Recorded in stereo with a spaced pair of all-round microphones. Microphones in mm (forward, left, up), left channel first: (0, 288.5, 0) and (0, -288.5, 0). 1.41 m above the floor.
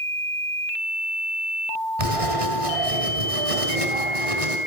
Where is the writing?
70° right (ahead or behind), 3.5 m.